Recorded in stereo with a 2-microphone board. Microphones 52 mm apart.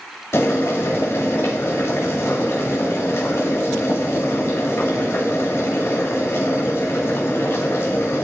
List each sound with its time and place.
0.3 s boiling: 50° left (ahead or behind), 2 m